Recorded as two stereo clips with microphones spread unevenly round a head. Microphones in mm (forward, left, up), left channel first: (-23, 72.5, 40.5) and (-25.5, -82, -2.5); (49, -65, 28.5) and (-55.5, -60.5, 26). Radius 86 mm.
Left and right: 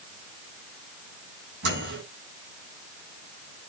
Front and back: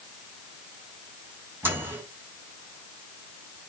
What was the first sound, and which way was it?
A microwave, 110° right.